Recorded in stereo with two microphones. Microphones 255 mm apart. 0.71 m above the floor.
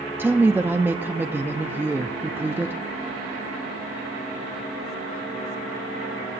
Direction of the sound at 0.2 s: 10° right (ahead or behind).